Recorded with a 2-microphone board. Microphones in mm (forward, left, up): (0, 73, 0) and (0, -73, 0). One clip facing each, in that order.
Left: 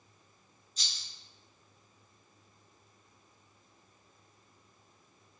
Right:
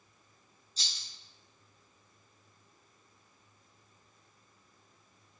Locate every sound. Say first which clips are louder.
0.8 s a rattle: even; 30° right (ahead or behind), 0.8 m